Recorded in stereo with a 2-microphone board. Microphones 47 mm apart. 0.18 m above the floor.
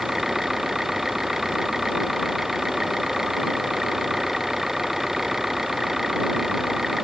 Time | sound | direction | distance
0.0 | an engine running | 10° right (ahead or behind) | ?